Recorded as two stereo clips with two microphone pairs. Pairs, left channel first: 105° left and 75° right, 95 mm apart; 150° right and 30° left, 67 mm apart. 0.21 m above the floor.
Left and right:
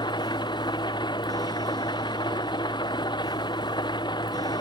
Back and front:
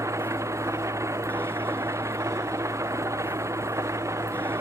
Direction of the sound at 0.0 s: 70° left.